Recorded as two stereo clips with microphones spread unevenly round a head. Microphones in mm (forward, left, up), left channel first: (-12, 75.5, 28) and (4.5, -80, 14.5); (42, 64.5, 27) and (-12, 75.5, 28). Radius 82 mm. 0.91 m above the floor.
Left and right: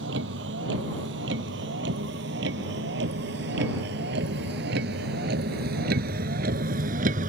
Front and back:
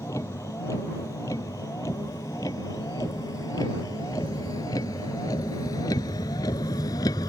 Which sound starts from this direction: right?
A vehicle, at 0.0 s.